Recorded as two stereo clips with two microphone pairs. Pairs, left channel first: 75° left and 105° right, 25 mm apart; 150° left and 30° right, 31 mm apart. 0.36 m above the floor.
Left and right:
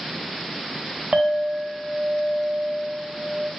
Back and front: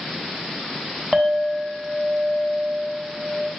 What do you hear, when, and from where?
1.1 s a clink: 100° right, 0.6 m